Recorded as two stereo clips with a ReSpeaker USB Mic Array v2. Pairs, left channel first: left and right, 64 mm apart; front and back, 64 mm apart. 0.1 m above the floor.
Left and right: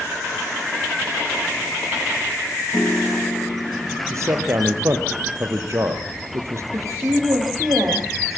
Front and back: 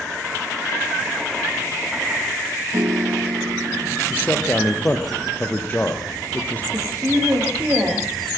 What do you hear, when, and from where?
2.7 s a piano: 160° left, 0.8 m
4.1 s a man speaking: 60° right, 3 m
6.7 s a woman speaking: 125° right, 9 m